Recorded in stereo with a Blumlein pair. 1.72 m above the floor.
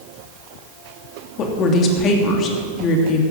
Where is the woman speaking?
30° left, 3 m.